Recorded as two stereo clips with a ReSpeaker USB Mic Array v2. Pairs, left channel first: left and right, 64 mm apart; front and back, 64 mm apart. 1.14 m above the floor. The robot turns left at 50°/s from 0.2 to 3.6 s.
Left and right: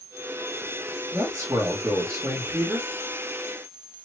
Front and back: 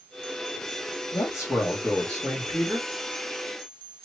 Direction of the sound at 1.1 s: 25° right.